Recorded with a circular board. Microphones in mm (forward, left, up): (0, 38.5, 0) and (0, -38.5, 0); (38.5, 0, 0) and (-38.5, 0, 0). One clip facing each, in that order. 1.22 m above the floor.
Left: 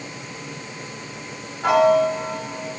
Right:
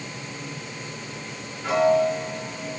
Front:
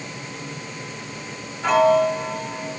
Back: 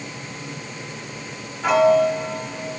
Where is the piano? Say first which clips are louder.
Left 4 dB, back 1 dB; 95° left, 2 m.